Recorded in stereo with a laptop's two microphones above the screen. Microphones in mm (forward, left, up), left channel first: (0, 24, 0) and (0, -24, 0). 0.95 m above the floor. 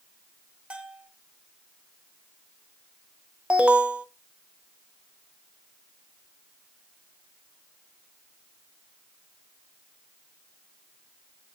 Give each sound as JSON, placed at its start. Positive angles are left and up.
{"t": 0.7, "sound": "a bell", "side_deg": -25, "distance_m": 1.2}
{"t": 3.5, "sound": "an alarm", "side_deg": -20, "distance_m": 0.6}